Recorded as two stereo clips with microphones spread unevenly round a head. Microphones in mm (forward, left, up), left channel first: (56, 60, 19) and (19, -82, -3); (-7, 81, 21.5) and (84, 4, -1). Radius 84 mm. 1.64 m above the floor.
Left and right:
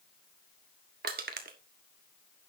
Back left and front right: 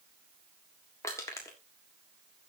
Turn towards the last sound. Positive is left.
turn(degrees=-145)